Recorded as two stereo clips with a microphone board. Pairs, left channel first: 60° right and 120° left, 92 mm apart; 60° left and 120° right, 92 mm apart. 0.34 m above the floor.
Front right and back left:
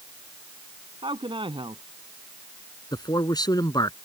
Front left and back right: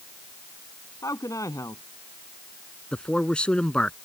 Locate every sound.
1.0 s a man speaking: 110° left
2.9 s a man speaking: 20° right